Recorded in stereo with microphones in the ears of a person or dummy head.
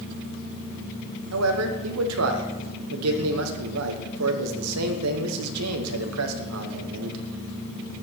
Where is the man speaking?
85° right, 1.1 m.